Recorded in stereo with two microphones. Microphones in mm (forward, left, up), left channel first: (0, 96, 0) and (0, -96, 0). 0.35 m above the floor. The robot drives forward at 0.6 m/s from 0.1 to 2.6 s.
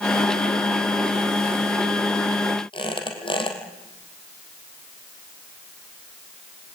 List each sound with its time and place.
2.7 s a squeak: 25° left (ahead or behind), 3 m